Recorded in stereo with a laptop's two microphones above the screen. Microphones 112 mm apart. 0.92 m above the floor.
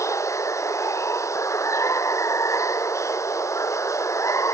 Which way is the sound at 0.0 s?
25° left (ahead or behind).